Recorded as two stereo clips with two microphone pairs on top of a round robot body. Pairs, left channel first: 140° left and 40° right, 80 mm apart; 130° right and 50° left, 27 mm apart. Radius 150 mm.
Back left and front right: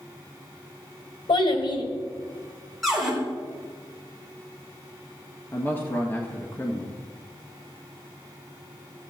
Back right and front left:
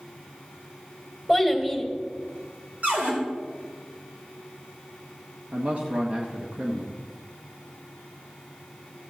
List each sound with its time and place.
1.3 s a child speaking: 130° left, 2.5 m
2.8 s a cupboard door: 50° left, 4 m
5.5 s a man speaking: 80° left, 1.5 m